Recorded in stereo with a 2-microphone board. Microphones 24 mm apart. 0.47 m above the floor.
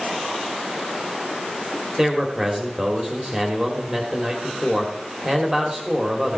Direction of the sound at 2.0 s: 20° right (ahead or behind).